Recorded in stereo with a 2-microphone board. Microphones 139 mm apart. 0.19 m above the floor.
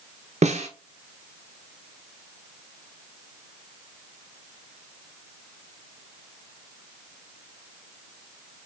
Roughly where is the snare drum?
Right.